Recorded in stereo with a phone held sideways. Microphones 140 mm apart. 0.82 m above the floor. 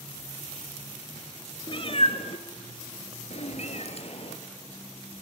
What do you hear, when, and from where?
1.7 s a cat meowing: 40° left (ahead or behind), 1.3 m; by 4.4 s 50° left (ahead or behind), 1.9 m